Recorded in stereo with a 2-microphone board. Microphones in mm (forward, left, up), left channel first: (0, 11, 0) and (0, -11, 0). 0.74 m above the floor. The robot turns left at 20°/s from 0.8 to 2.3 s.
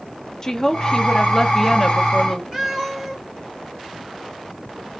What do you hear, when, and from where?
0.4 s a woman speaking: 30° left (ahead or behind), 0.7 m; by 2.4 s 5° left (ahead or behind), 0.7 m
2.5 s a cat meowing: 10° right (ahead or behind), 1.5 m